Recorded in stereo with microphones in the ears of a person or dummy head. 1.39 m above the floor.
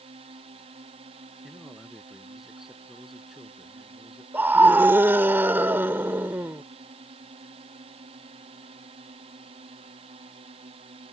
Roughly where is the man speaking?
Centre.